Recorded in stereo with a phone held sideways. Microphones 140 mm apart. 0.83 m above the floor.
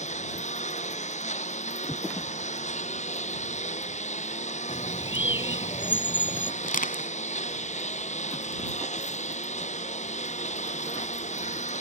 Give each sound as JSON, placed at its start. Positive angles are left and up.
{"t": 0.0, "sound": "a lawn mower", "side_deg": 55}
{"t": 4.7, "sound": "a bird", "side_deg": 35}
{"t": 6.6, "sound": "crushing", "side_deg": 80}